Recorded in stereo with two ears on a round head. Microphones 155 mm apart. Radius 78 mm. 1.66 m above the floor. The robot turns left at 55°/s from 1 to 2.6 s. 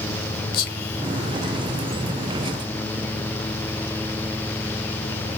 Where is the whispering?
55° left (ahead or behind), 0.9 m; by 2.0 s centre (ahead or behind), 0.9 m.